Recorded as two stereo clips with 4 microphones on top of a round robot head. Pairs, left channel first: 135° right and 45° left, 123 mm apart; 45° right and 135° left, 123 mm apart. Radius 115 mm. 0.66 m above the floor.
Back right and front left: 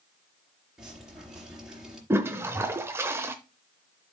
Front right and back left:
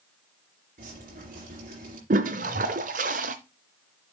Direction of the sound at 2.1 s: 115° left.